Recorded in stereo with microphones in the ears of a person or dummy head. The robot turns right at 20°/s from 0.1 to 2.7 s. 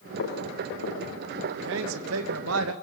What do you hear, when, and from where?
0.2 s footsteps: 80° left, 9.5 m; by 1.0 s 75° left (ahead or behind), 9.5 m
1.6 s a man speaking: 70° right (ahead or behind), 2.5 m; by 2.7 s 85° right, 2.5 m